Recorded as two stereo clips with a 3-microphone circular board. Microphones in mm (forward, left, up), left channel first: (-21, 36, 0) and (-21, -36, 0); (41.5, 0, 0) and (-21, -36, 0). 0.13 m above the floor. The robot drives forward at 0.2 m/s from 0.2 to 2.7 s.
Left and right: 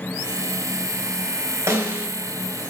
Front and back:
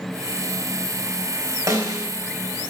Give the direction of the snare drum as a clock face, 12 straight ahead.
4 o'clock.